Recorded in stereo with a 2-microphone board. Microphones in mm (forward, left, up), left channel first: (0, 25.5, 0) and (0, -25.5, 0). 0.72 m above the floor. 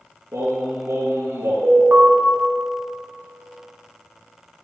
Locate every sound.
0.3 s singing: 65° right (ahead or behind), 2 m
1.6 s an alarm: 45° right (ahead or behind), 1.6 m